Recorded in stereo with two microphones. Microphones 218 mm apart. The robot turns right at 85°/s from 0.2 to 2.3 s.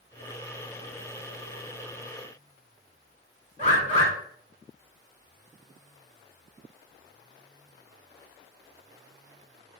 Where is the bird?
30° right (ahead or behind), 1.6 m.